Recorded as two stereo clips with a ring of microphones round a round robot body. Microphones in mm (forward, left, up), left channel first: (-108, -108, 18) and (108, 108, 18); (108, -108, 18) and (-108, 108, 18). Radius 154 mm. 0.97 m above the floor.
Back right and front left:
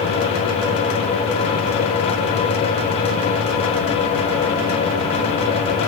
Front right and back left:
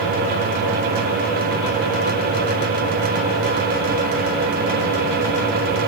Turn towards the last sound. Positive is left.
No sound to turn to.